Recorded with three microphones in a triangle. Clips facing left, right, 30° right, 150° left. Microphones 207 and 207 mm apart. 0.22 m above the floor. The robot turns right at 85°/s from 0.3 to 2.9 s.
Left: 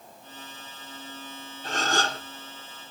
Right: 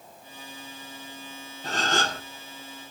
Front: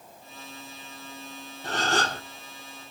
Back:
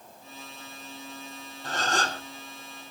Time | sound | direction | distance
1.6 | a gasp | 50° right | 3 m